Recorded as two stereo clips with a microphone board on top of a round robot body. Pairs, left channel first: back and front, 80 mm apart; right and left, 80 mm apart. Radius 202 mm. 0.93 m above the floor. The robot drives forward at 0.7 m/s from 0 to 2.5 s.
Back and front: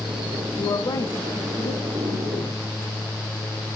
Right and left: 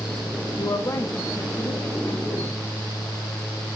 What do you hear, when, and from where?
0.6 s a woman speaking: 145° right, 2 m; by 2.6 s 155° right, 3.5 m